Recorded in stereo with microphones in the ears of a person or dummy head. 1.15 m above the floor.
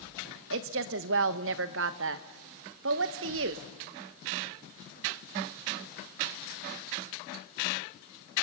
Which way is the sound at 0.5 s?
65° right (ahead or behind).